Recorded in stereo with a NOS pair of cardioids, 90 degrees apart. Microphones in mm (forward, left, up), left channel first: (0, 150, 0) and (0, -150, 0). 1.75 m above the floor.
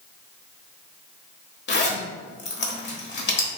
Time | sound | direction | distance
1.7 | a zipper | 35° left | 0.9 m